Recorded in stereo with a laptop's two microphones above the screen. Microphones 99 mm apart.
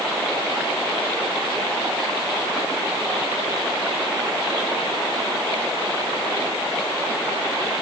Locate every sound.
Only background noise.